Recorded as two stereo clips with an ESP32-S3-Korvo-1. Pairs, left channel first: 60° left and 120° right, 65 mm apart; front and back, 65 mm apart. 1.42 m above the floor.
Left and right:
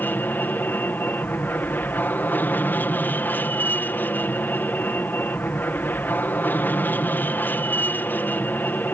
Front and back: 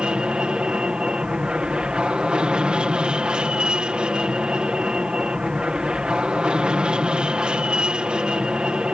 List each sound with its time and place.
0.0 s an aircraft: 110° left